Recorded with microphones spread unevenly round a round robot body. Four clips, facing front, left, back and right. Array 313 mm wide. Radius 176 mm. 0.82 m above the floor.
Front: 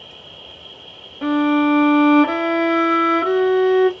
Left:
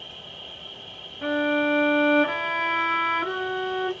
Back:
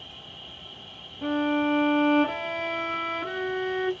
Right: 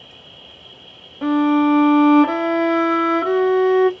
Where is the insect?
Straight ahead, 1.6 m.